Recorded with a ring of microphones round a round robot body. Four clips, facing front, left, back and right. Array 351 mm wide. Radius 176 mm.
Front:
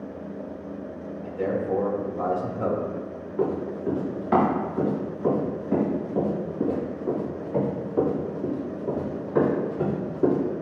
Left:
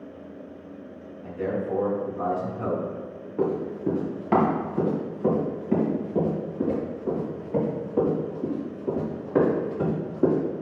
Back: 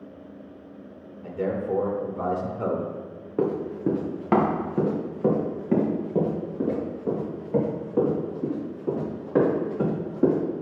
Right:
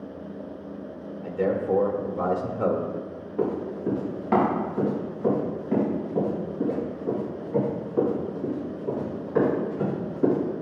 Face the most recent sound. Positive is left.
turn(degrees=170)